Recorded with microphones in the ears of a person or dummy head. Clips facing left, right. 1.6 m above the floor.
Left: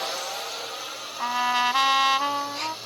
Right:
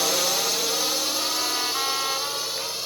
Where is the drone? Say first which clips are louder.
Right 7 dB; 55° right (ahead or behind); by 2.9 s 75° right (ahead or behind).